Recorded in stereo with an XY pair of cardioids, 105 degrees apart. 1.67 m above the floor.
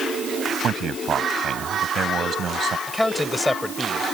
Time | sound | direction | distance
0.6 | a man speaking | 50° right | ?
2.9 | a man speaking | 10° left | ?